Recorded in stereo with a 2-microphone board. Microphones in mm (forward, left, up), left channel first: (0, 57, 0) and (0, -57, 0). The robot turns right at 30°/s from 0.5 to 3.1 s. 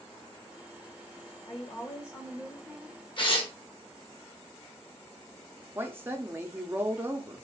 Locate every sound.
1.5 s a woman speaking: 140° left, 0.8 m; by 3.0 s 175° right, 0.8 m
3.2 s tearing paper: 45° left (ahead or behind), 1.0 m
5.8 s a woman speaking: 20° right (ahead or behind), 0.6 m